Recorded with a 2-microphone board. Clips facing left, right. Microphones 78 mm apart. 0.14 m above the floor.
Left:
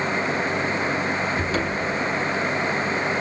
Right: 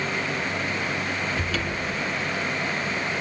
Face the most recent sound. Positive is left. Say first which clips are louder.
# left 4 dB
turn(degrees=25)  # may be behind; listen again after turning